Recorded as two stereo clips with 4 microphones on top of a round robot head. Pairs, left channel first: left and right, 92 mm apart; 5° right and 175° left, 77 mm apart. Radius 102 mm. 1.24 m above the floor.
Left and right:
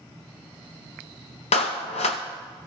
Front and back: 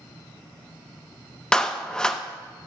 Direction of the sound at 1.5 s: 75° left.